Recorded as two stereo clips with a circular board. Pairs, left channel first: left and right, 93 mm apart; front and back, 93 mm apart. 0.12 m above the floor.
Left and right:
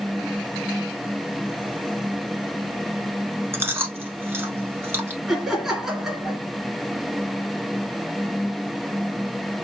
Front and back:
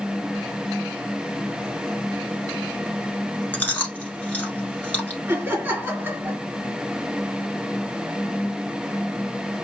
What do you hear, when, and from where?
3.5 s chewing: 55° right, 1.1 m
5.3 s laughter: 170° right, 1.7 m